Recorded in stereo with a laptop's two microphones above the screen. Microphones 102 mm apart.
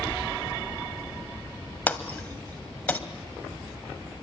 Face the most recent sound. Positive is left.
turn(degrees=15)  # may be behind; listen again after turning